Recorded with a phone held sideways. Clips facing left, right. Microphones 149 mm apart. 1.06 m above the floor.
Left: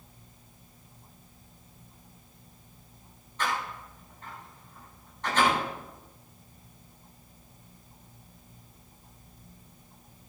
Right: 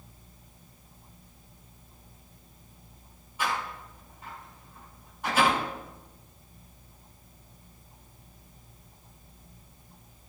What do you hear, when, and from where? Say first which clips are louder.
3.4 s a door slam: even; 10° right (ahead or behind), 6.5 m